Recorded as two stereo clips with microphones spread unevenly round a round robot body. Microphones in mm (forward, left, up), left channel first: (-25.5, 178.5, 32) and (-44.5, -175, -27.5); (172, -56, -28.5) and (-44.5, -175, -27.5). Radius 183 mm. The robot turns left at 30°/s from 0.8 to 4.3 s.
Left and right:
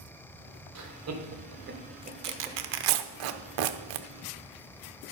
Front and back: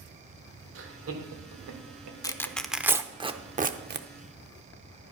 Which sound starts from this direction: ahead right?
Tearing paper, at 2.2 s.